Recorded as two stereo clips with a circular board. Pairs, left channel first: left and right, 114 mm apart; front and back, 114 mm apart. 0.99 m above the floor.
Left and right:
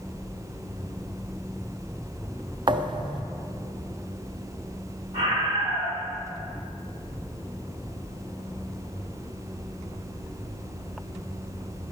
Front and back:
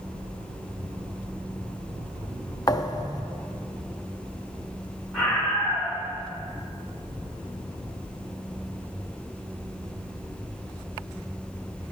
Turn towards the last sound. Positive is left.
turn(degrees=-75)